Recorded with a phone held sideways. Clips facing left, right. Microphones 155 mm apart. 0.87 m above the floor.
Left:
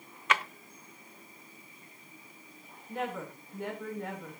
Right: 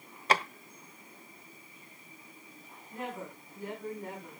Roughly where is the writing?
I don't hear writing.